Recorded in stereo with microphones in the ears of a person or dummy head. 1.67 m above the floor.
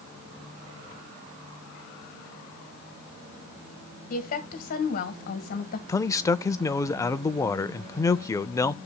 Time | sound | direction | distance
4.1 | a woman speaking | 50° left (ahead or behind) | 1.5 m
5.9 | a man speaking | 20° left (ahead or behind) | 0.5 m